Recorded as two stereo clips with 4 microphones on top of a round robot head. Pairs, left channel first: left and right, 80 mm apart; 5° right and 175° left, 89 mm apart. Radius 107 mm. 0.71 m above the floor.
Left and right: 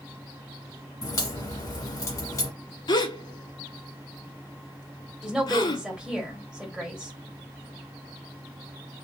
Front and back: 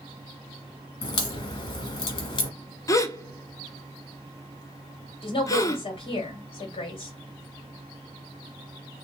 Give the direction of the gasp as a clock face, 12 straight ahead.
10 o'clock.